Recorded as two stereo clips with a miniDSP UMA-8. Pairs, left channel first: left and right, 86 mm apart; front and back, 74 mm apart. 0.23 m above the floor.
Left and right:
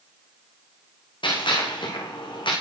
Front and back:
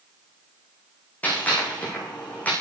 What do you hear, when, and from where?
1.2 s a gunshot: 70° left, 8 m